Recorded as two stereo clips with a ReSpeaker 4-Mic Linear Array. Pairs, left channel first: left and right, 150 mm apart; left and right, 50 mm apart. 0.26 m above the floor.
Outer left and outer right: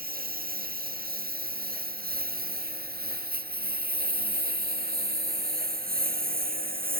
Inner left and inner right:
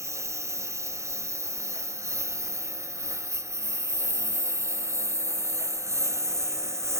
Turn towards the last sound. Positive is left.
turn(degrees=-75)  # may be behind; listen again after turning